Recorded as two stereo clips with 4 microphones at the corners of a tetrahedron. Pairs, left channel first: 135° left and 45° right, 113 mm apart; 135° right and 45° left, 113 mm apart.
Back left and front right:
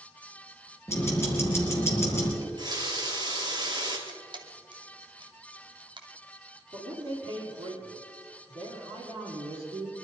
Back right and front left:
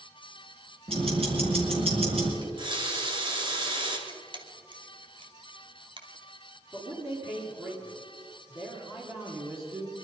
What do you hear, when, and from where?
0.9 s ticking: 70° left, 4 m
2.4 s a running tap: 5° left, 2.5 m
4.1 s a camera shutter: straight ahead, 1.5 m
6.7 s a man speaking: 10° right, 5.5 m